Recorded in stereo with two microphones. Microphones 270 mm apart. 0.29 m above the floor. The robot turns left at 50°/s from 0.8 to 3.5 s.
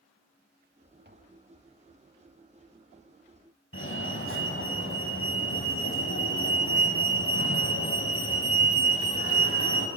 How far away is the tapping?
About 1.1 m.